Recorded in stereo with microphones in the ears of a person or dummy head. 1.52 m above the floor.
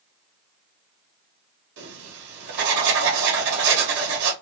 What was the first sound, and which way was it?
Writing, 60° right (ahead or behind).